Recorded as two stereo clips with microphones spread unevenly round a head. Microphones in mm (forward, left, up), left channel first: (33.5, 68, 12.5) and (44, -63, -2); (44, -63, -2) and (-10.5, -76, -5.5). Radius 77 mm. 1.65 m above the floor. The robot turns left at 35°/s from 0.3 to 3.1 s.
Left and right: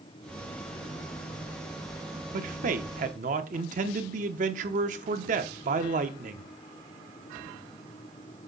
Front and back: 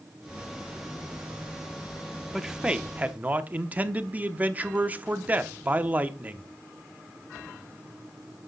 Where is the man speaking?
80° right, 0.8 m; by 6.5 s 110° right, 0.8 m.